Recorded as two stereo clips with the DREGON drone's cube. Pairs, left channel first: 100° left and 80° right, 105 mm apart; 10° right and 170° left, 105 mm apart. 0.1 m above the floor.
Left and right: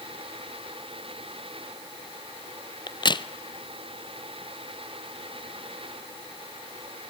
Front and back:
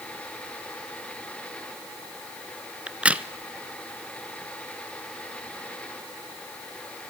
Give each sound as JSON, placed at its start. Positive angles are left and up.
{"t": 2.9, "sound": "a crack", "azimuth_deg": 95, "distance_m": 0.8}